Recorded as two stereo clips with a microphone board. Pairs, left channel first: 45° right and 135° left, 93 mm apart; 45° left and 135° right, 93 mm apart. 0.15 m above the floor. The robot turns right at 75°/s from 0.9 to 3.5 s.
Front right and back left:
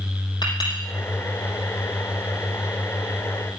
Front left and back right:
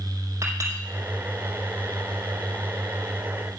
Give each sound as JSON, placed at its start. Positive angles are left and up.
{"t": 0.4, "sound": "a clink", "azimuth_deg": -75, "distance_m": 4.5}